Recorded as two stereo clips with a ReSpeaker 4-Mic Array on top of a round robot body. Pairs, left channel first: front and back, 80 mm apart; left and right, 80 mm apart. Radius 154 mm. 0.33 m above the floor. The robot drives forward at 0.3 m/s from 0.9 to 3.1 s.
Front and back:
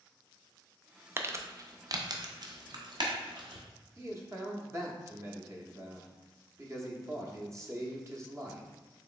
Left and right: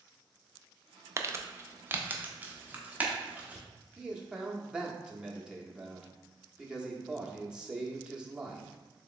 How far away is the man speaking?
About 1.0 m.